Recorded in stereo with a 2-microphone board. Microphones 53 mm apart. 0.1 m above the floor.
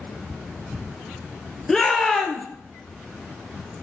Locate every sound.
1.7 s a shout: 5° left (ahead or behind), 2.0 m